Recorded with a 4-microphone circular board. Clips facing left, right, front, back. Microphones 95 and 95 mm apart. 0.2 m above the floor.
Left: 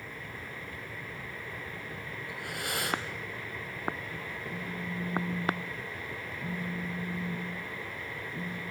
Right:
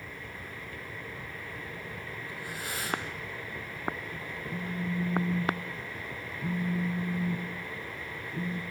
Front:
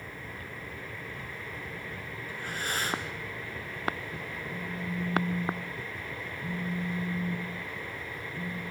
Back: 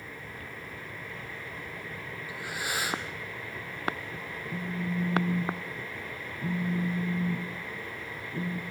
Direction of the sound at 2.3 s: 100° left.